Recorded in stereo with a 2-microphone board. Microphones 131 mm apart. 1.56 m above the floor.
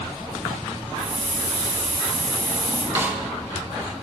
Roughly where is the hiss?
Left.